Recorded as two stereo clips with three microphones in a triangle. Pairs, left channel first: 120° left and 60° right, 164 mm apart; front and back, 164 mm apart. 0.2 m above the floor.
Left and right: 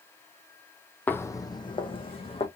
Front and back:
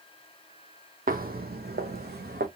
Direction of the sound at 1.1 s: 160° right.